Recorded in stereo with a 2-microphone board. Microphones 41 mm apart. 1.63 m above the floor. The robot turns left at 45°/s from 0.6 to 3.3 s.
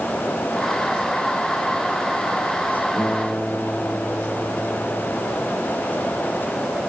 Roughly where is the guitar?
Left.